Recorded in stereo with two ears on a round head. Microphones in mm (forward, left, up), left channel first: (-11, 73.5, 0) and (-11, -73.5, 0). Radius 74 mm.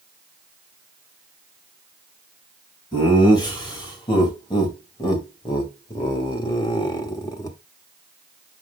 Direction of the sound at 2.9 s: 25° left (ahead or behind).